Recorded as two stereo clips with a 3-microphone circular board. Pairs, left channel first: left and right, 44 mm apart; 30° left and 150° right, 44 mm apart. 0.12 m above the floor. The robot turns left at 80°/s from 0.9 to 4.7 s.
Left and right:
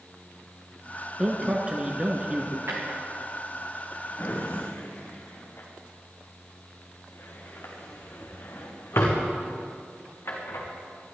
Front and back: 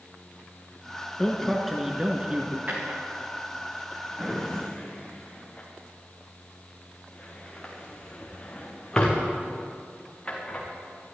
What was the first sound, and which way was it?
A man speaking, 25° right.